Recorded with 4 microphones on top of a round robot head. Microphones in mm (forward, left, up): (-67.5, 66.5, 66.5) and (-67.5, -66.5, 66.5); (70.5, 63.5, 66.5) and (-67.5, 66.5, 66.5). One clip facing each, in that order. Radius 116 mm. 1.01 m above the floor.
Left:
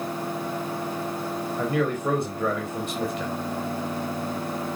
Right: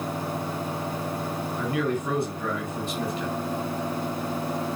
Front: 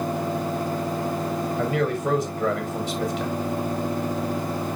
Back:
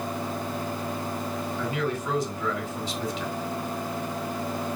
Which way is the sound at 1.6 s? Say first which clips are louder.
Left 2 dB, front 5 dB; 45° left.